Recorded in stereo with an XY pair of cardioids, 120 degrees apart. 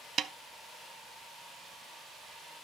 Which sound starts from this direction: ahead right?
A snare drum, at 0.2 s.